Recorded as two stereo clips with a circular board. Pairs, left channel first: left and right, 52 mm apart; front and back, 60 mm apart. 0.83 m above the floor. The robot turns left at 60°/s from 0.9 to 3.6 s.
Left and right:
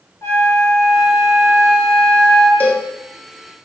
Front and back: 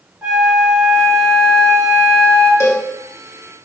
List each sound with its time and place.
0.2 s a flute: 105° left, 3 m; by 2.5 s 5° left, 3 m
2.6 s a cowbell: 35° left, 1.4 m; by 2.9 s 20° left, 1.4 m